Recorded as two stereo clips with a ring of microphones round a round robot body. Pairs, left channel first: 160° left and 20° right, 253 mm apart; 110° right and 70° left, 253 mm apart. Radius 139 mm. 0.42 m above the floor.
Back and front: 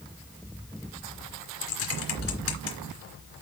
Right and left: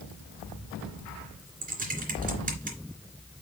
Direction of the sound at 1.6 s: 125° left.